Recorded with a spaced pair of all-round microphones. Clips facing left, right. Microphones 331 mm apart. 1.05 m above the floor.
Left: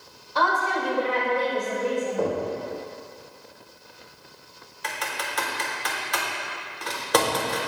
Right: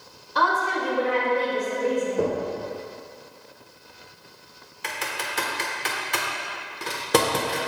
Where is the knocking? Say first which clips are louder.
Even; 50° right (ahead or behind), 2.5 m.